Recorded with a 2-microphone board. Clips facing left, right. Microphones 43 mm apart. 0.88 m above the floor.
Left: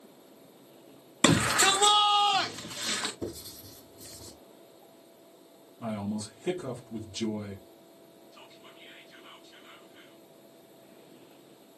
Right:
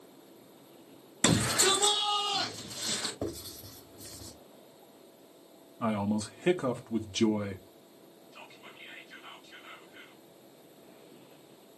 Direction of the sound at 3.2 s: 60° right (ahead or behind).